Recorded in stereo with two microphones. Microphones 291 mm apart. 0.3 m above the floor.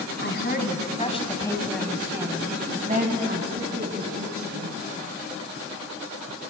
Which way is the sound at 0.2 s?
40° left (ahead or behind).